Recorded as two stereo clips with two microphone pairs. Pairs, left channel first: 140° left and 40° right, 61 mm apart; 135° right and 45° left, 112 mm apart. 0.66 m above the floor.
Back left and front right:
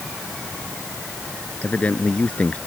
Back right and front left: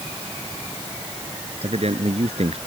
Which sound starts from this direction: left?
A man speaking, at 1.6 s.